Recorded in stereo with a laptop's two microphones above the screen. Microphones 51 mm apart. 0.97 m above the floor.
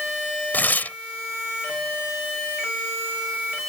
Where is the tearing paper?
35° left (ahead or behind).